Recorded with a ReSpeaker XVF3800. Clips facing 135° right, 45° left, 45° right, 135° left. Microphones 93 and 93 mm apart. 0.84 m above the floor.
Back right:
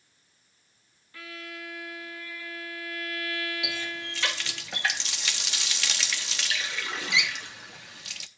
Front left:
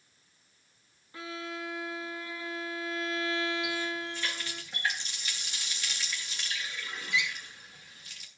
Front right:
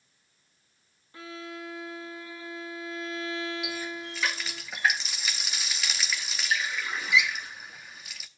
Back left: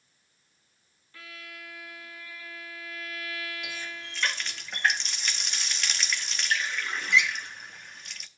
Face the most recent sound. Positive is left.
turn(degrees=-130)